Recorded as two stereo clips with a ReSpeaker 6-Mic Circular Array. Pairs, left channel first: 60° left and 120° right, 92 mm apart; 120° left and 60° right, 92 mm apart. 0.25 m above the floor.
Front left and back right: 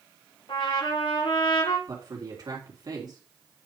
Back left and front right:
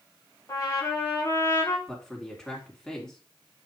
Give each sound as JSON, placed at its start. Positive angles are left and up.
{"t": 0.5, "sound": "a trumpet", "azimuth_deg": 70, "distance_m": 6.0}
{"t": 1.9, "sound": "a man speaking", "azimuth_deg": -155, "distance_m": 3.5}